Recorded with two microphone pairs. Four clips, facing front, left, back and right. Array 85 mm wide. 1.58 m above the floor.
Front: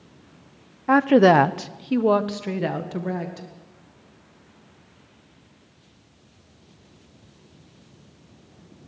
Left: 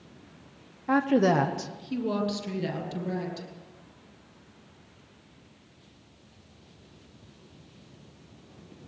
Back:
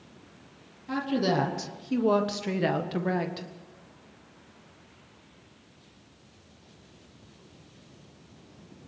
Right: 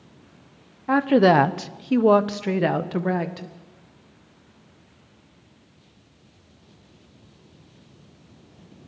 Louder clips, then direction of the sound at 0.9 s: Right 6 dB, front 12 dB; 10° right.